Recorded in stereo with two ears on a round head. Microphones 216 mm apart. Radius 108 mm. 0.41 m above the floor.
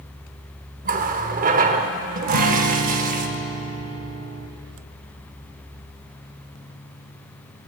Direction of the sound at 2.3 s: 70° right (ahead or behind).